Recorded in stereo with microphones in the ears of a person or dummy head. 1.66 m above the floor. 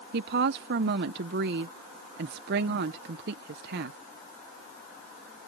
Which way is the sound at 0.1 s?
60° right (ahead or behind).